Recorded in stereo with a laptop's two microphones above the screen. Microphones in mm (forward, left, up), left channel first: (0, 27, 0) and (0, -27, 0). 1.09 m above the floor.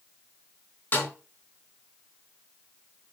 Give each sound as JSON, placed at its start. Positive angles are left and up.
{"t": 0.9, "sound": "a snare drum", "side_deg": 35, "distance_m": 3.5}